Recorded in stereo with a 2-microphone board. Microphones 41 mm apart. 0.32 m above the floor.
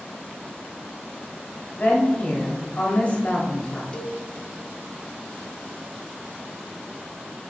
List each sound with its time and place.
1.7 s a woman speaking: 35° left (ahead or behind), 1.1 m
3.9 s a cowbell: 25° left (ahead or behind), 0.5 m